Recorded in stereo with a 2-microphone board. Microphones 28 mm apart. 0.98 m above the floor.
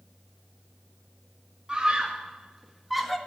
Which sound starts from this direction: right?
A scream, at 1.7 s.